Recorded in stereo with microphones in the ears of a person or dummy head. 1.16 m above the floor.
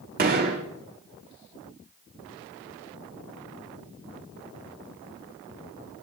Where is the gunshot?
45° right (ahead or behind), 2 m.